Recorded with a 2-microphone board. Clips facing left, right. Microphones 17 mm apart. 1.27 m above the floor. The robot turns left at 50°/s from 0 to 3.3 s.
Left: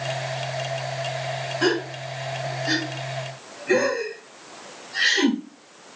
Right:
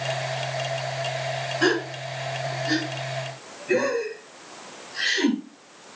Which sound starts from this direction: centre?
A gasp, at 1.6 s.